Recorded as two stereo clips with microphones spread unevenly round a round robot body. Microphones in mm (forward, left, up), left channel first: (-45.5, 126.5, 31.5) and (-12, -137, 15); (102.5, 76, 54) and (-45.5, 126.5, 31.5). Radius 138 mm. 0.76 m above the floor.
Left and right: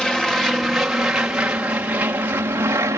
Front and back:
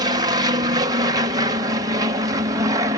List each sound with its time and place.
0.0 s an aircraft: 175° right; by 3.0 s 155° right